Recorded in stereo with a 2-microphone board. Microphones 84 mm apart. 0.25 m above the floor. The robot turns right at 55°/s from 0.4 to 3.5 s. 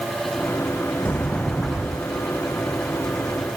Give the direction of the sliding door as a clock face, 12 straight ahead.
7 o'clock.